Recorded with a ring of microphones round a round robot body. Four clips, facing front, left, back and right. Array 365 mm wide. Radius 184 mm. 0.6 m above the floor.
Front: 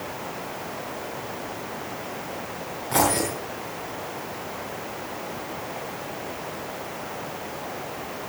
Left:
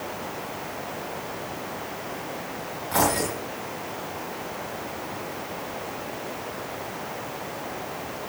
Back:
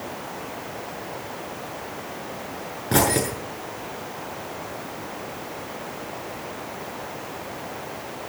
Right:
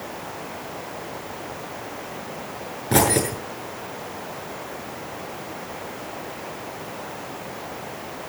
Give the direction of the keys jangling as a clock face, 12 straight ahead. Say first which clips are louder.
Right 4 dB, back 1 dB; 4 o'clock.